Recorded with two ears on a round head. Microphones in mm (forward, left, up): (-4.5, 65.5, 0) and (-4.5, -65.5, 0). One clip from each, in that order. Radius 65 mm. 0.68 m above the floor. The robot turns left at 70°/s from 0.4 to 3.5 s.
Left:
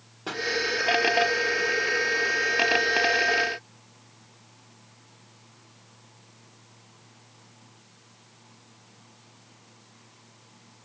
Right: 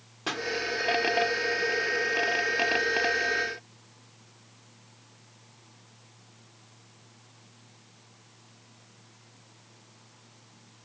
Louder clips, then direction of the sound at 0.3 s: Left 1 dB; 45° right (ahead or behind).